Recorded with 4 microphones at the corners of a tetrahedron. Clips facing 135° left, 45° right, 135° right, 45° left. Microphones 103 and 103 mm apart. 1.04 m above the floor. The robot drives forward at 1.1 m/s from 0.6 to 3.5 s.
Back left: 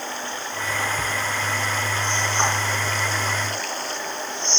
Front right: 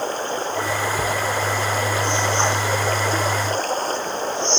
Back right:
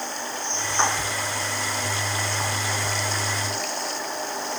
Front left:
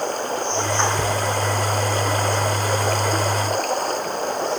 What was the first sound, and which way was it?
Running water, 5° left.